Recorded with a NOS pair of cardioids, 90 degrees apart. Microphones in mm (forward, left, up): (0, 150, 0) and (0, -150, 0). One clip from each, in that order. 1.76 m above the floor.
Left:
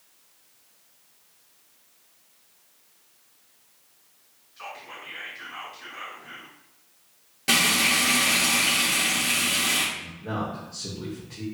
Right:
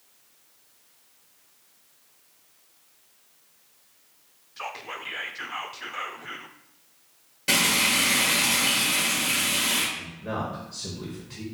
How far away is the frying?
About 2 m.